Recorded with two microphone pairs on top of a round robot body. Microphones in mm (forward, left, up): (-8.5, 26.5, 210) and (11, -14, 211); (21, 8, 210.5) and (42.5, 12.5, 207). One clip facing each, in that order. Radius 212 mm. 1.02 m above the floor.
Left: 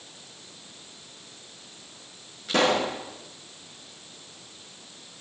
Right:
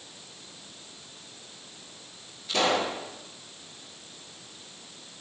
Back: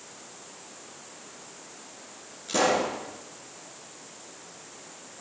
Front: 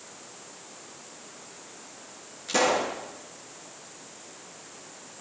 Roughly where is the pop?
Left.